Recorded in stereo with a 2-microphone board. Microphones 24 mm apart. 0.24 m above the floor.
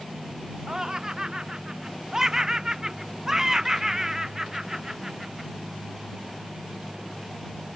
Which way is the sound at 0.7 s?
25° right (ahead or behind).